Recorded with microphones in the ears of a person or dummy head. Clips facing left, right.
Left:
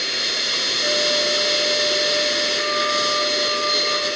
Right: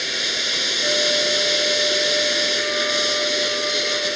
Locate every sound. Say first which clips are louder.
0.0 s a machine running: even; 5° right (ahead or behind)